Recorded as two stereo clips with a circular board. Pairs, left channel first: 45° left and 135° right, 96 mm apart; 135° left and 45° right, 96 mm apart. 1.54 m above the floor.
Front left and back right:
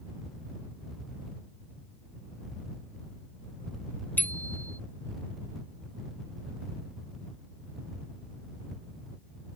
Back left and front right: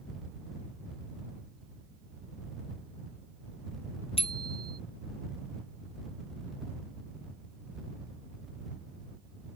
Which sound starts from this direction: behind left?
A bicycle bell, at 4.2 s.